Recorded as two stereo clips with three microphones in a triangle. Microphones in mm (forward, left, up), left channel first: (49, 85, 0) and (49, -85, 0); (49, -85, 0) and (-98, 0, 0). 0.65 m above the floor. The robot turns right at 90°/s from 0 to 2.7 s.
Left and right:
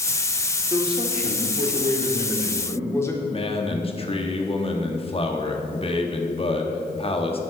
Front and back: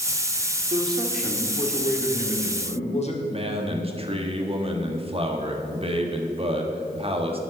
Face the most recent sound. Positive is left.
turn(degrees=120)